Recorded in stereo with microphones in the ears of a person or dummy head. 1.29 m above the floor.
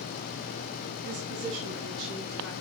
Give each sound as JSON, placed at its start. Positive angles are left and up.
{"t": 1.0, "sound": "a woman speaking", "side_deg": -60, "distance_m": 2.0}